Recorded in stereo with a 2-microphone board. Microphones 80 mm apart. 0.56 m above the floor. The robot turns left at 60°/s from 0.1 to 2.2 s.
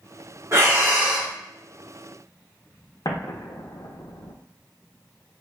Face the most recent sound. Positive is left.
turn(degrees=60)  # may be behind; listen again after turning